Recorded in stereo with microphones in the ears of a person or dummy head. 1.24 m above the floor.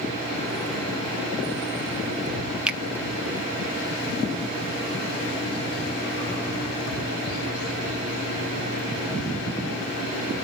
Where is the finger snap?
5° right (ahead or behind), 0.8 m.